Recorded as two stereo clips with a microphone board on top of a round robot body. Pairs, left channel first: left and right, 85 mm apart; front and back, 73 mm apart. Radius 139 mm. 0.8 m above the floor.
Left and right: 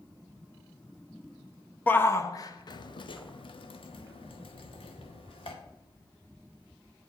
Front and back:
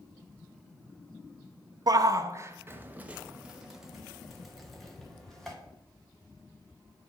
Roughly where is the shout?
Behind.